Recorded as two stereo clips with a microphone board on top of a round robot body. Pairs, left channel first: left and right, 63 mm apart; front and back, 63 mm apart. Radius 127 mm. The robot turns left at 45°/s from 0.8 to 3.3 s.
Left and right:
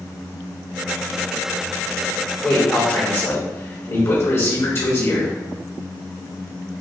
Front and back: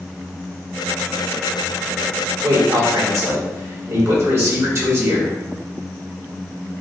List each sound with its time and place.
2.4 s a man speaking: 165° left, 2.0 m; by 5.3 s 125° left, 2.0 m